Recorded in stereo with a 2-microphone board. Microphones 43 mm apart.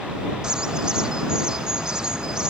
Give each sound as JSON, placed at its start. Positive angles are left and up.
{"t": 0.4, "sound": "a bird", "side_deg": -15}